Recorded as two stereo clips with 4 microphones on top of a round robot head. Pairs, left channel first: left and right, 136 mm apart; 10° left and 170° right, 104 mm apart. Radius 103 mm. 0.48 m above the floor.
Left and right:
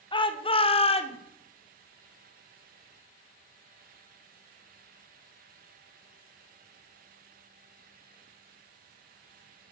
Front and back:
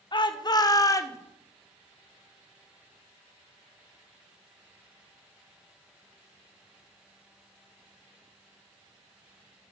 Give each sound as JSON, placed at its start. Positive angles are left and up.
{"t": 0.1, "sound": "a shout", "azimuth_deg": 45, "distance_m": 2.5}